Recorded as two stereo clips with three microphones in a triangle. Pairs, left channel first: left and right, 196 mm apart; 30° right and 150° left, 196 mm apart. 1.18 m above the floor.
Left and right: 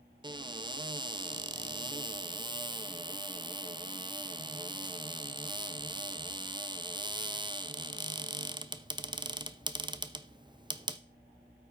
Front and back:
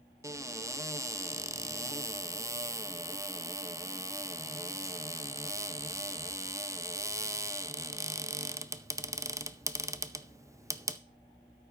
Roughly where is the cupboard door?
Behind right.